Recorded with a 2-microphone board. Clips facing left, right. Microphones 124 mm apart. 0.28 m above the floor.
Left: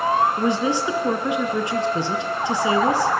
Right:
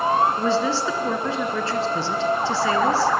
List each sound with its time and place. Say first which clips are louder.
0.4 s a woman speaking: even; 15° left (ahead or behind), 2.5 m